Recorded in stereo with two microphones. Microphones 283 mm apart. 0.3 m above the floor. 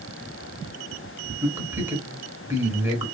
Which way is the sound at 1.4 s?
10° right (ahead or behind).